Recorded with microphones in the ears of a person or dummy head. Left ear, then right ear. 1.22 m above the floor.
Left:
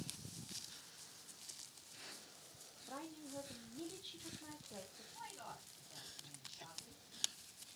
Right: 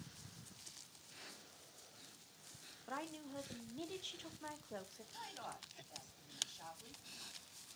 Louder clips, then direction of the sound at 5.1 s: Right 3 dB; 70° right (ahead or behind).